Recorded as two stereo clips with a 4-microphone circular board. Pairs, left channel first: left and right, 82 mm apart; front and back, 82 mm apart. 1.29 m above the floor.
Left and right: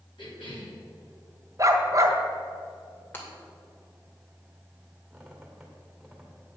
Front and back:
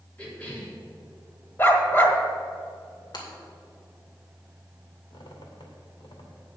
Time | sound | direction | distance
0.2 | a cough | 75° left | 3.5 m
1.6 | a dog barking | 55° right | 1.4 m
3.1 | breaking glass | 25° left | 2.5 m
5.1 | a squeak | straight ahead | 2.5 m